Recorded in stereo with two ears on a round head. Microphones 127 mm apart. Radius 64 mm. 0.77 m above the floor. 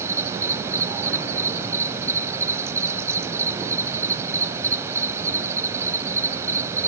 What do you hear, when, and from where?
0.0 s an insect: 20° right (ahead or behind), 0.9 m